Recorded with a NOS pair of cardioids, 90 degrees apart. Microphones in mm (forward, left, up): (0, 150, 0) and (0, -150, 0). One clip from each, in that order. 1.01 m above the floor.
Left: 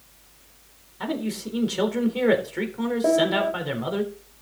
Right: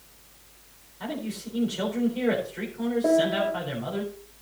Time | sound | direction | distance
1.0 | a man speaking | 60° left | 3.5 m
3.0 | a piano | 20° left | 1.7 m